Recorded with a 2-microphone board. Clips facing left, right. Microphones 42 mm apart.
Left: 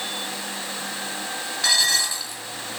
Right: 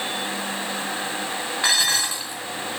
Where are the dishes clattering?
30° right (ahead or behind), 4 m.